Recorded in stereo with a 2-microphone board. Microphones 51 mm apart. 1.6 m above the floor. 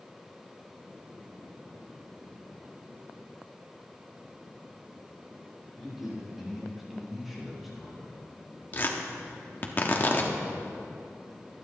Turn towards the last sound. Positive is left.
turn(degrees=35)  # may be behind; listen again after turning